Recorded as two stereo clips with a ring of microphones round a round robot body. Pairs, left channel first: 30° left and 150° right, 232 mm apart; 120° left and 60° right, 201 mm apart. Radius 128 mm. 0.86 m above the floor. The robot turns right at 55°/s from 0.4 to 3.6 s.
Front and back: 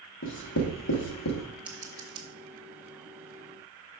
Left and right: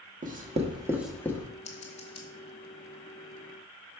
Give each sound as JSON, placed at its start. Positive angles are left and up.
{"t": 0.2, "sound": "writing", "azimuth_deg": -10, "distance_m": 1.2}
{"t": 1.6, "sound": "scissors", "azimuth_deg": 130, "distance_m": 0.6}